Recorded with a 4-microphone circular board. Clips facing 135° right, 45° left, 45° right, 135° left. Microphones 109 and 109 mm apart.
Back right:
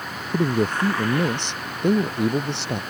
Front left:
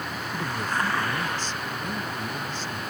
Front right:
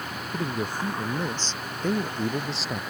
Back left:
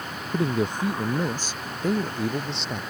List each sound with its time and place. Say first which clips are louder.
0.3 s a man speaking: back right 8 dB, back left 5 dB; 160° right; by 2.8 s 130° right